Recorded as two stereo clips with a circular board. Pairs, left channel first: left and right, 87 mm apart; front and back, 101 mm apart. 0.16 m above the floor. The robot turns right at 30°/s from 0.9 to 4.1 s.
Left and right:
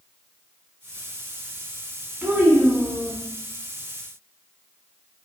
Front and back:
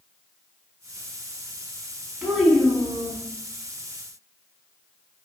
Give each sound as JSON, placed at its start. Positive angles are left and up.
{"t": 2.2, "sound": "a child speaking", "azimuth_deg": -110, "distance_m": 0.6}